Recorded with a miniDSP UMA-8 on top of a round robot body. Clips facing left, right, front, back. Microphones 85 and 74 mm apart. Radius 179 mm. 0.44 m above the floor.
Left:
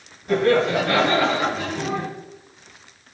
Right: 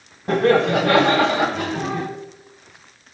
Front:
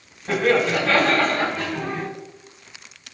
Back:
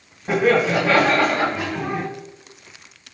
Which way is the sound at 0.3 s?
105° right.